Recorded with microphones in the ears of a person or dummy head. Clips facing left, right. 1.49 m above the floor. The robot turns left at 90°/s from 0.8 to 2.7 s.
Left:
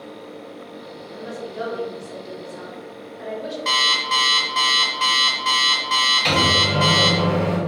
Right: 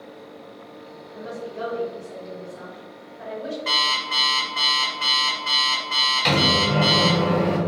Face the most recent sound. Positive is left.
turn(degrees=-5)  # may be behind; listen again after turning